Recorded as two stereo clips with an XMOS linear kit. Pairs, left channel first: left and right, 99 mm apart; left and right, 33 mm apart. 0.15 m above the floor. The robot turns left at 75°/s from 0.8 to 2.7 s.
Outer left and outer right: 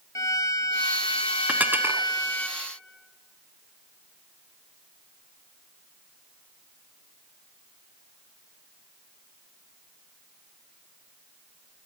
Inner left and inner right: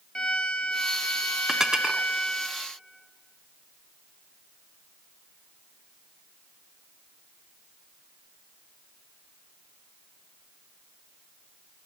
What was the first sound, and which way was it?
A violin, 140° left.